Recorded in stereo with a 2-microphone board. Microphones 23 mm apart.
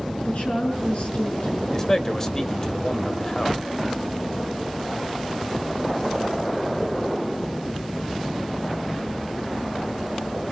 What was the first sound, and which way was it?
A woman speaking, 70° left (ahead or behind).